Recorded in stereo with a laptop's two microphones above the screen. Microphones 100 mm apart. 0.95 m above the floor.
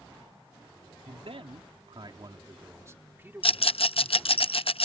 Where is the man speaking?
75° right (ahead or behind); by 4.4 s 5° right (ahead or behind).